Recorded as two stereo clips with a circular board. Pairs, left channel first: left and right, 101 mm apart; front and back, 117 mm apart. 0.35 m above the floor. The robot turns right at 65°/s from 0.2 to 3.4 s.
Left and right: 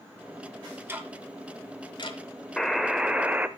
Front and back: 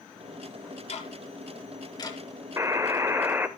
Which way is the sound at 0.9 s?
25° right.